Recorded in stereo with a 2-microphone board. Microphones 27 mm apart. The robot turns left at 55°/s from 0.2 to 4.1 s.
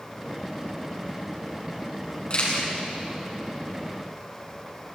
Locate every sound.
2.3 s a camera shutter: 40° left (ahead or behind), 7 m; by 2.7 s 60° left (ahead or behind), 7 m